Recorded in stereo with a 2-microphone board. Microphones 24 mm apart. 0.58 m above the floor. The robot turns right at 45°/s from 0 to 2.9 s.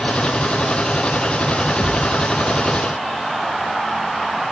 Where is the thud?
80° left, 7 m; by 2.2 s 85° left, 7 m.